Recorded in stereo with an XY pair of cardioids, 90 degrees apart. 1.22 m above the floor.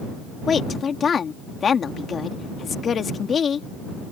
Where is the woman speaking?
50° left.